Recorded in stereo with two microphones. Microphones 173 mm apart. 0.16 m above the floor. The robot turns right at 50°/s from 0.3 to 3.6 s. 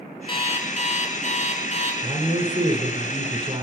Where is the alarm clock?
45° left, 1.3 m; by 1.9 s 125° left, 1.3 m.